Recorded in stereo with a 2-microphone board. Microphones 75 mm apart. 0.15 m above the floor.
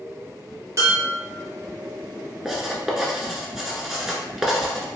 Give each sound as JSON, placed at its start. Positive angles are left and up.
{"t": 0.8, "sound": "dishes clattering", "side_deg": -40, "distance_m": 2.0}
{"t": 2.5, "sound": "writing", "side_deg": -10, "distance_m": 0.7}